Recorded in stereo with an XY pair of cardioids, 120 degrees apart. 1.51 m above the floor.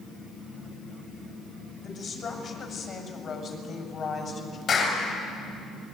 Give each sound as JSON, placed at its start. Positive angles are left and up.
{"t": 1.8, "sound": "a woman speaking", "azimuth_deg": 55, "distance_m": 7.0}
{"t": 4.7, "sound": "a clap", "azimuth_deg": 50, "distance_m": 8.0}